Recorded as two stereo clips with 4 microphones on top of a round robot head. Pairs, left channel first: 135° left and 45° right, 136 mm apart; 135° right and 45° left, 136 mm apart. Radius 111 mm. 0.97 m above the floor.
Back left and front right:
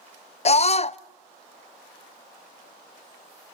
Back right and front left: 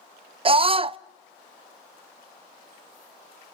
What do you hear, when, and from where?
0.5 s a scream: 95° left, 0.5 m